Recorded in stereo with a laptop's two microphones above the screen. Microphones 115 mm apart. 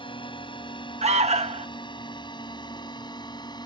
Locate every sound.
0.0 s a drone: 50° left (ahead or behind); by 3.7 s 40° left (ahead or behind)
1.0 s an alarm: 85° right